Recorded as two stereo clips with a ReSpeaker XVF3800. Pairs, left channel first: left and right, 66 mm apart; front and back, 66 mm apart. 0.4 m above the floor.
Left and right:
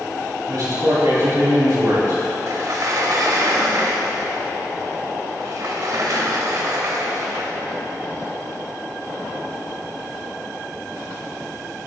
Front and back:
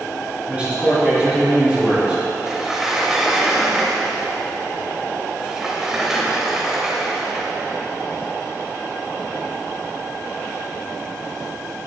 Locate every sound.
0.5 s a man speaking: 120° right, 3 m
2.5 s a sliding door: 100° right, 1.0 m